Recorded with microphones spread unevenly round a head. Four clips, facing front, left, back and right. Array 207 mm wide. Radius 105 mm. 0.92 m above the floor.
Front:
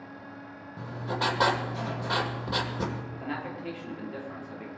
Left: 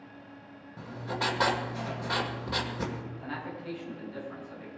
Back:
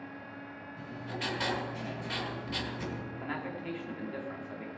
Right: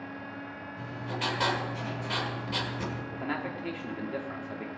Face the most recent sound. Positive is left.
turn(degrees=-85)